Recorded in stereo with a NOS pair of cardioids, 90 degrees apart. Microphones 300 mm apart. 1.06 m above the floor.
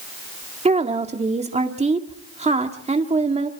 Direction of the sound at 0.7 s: 20° right.